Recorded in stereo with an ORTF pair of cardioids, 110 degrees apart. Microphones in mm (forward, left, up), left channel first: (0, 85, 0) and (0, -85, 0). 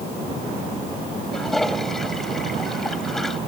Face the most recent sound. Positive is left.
turn(degrees=0)